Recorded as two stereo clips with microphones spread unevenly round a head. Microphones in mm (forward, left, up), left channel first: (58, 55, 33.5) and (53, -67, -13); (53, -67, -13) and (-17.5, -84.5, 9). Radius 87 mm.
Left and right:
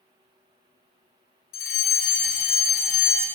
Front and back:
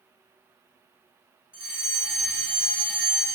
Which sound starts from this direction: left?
A fire alarm, at 1.5 s.